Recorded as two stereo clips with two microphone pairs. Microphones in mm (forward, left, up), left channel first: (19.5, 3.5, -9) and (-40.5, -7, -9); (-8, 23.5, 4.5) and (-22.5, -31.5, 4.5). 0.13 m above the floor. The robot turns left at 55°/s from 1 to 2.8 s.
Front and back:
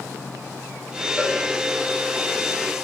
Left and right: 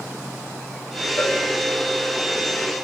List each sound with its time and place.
1.2 s a cowbell: 110° left, 2 m; by 1.4 s 100° left, 2 m